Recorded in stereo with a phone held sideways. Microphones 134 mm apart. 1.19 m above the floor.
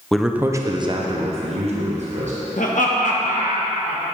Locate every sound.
0.1 s a man speaking: 5° left (ahead or behind), 0.6 m; by 2.3 s 60° right (ahead or behind), 1.4 m
2.6 s laughter: 75° left (ahead or behind), 1.2 m